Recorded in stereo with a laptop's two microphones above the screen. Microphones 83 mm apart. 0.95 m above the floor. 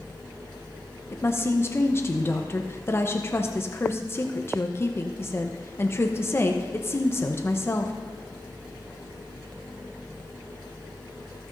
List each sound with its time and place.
1.1 s a woman speaking: 30° left (ahead or behind), 0.8 m